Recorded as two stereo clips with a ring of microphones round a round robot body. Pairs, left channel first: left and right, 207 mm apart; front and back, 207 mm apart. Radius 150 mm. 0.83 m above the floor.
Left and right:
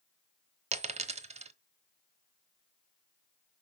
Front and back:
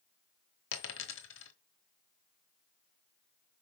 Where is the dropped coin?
35° right, 0.9 m.